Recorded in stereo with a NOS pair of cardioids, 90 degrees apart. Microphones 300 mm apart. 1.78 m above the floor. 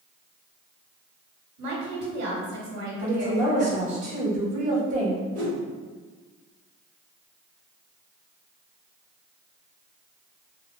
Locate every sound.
1.6 s a woman speaking: 60° right, 1.4 m
3.0 s a woman speaking: 60° right, 1.0 m
5.3 s a whoosh: 60° right, 1.2 m